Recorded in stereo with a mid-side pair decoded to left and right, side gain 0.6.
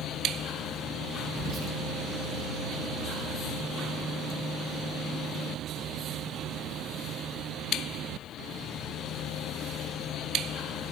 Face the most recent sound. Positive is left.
turn(degrees=-60)